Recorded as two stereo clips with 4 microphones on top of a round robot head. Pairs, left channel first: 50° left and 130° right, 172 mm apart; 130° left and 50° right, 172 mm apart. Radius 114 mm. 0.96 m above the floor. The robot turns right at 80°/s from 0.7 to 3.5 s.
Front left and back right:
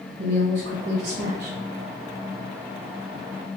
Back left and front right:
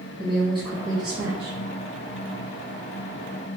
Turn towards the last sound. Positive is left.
turn(degrees=85)